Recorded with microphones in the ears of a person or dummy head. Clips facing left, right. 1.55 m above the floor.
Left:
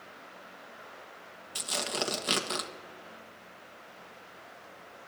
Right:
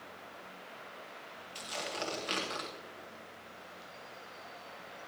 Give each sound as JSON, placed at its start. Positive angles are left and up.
{"t": 1.6, "sound": "tearing paper", "side_deg": 60, "distance_m": 1.4}